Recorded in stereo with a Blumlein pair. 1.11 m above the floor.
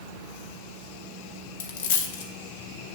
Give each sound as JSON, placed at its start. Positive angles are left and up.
{"t": 1.6, "sound": "a dropped coin", "azimuth_deg": 50, "distance_m": 1.5}